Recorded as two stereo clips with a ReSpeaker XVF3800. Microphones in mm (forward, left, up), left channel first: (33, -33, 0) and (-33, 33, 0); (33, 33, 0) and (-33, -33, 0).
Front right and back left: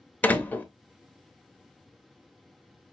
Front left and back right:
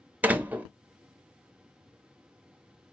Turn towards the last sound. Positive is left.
turn(degrees=-90)